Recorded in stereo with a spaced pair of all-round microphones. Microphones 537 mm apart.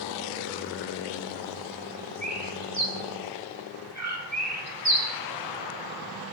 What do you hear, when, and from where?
2.2 s a bird: 30° right (ahead or behind), 1.6 m